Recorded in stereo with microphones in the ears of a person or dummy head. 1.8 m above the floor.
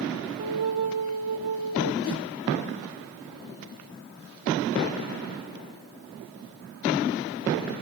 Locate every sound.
0.4 s a flute: 40° right (ahead or behind), 2.5 m
2.0 s a whoosh: 25° right (ahead or behind), 2 m